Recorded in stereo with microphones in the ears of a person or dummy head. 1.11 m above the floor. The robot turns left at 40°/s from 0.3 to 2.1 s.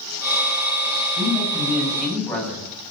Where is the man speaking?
145° right, 8 m; by 2.7 s 175° left, 8 m.